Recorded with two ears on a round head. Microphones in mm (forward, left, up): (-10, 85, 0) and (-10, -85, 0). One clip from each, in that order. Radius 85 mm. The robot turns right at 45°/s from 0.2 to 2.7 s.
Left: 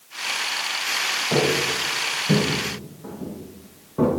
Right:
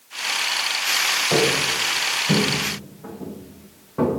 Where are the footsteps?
80° right, 8.5 m; by 4.1 s 45° right (ahead or behind), 7 m.